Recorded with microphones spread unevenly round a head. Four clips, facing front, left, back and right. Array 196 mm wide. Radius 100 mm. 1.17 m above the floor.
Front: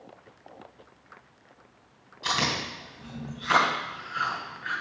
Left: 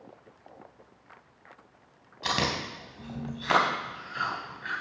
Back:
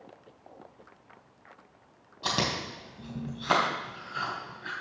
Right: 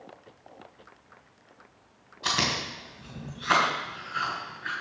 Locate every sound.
2.2 s chewing: 160° left, 3 m